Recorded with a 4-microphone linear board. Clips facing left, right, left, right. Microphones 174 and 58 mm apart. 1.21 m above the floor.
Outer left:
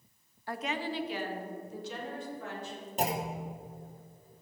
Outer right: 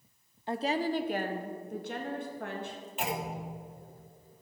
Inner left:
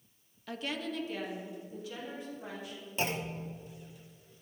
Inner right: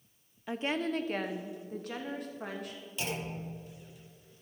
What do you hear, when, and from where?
0.5 s a woman speaking: 25° right (ahead or behind), 0.6 m; by 2.8 s 70° right (ahead or behind), 2.5 m
3.0 s a clunk: 40° left (ahead or behind), 1.1 m